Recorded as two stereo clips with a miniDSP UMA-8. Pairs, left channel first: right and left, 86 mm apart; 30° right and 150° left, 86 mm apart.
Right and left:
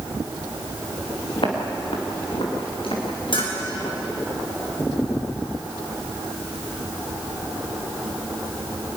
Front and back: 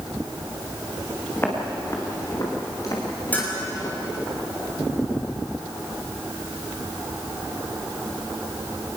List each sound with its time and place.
1.4 s footsteps: 95° right, 5 m; by 4.3 s 70° right, 7 m
3.3 s a bell: 105° right, 6 m